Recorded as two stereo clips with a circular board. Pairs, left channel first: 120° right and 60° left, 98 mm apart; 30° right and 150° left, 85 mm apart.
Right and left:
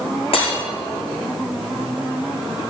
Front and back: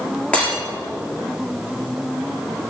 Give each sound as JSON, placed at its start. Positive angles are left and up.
{"t": 0.3, "sound": "breaking glass", "azimuth_deg": -105, "distance_m": 5.5}